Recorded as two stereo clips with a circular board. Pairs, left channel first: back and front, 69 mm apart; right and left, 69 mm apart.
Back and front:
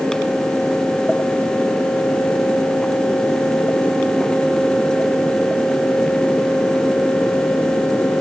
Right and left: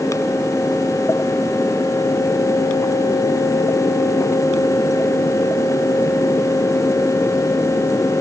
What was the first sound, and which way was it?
Only background noise.